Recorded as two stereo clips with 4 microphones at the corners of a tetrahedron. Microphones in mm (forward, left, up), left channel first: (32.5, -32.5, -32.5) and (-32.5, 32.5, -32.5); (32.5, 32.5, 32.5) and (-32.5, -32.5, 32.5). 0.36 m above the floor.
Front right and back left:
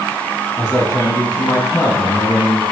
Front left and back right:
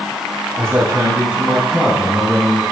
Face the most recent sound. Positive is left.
turn(degrees=-45)